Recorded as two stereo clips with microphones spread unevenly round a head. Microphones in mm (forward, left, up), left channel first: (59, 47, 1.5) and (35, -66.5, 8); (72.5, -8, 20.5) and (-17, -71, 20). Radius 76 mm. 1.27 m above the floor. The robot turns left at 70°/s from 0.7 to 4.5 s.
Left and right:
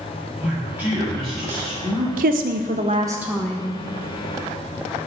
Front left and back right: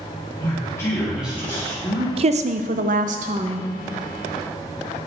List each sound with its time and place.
0.4 s a man speaking: 25° right, 2 m; by 2.1 s 120° right, 2 m
2.2 s a woman speaking: 110° right, 0.5 m; by 3.7 s 145° left, 0.5 m